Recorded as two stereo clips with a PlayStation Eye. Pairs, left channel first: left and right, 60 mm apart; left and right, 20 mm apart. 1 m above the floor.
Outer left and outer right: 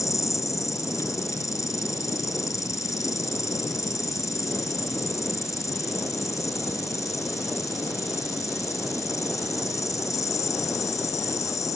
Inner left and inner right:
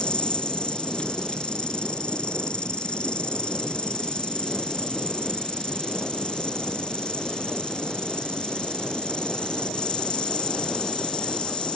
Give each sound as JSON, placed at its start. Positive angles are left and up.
{"t": 0.0, "sound": "an insect", "side_deg": 60}